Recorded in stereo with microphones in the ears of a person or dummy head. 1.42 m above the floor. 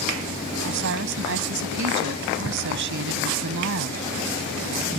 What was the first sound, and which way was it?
A woman speaking, 65° right (ahead or behind).